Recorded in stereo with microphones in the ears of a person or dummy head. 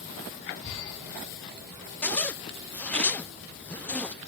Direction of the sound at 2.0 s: 5° left (ahead or behind).